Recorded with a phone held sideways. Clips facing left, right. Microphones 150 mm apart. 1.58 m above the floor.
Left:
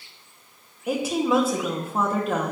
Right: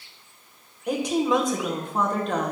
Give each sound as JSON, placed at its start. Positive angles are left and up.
{"t": 0.9, "sound": "a woman speaking", "side_deg": 5, "distance_m": 1.9}